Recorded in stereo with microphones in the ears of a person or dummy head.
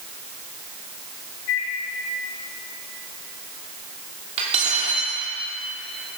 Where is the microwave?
80° left, 4 m.